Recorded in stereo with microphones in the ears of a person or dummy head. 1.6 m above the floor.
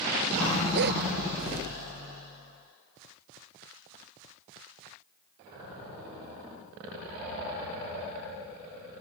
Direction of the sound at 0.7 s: 60° right (ahead or behind).